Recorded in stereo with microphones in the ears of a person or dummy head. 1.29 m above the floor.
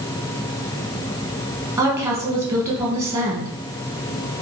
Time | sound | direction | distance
1.8 | a woman speaking | 15° right (ahead or behind) | 1.4 m